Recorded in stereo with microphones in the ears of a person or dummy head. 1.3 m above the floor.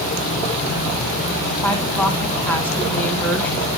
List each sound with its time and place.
1.6 s a woman speaking: 10° left (ahead or behind), 2.5 m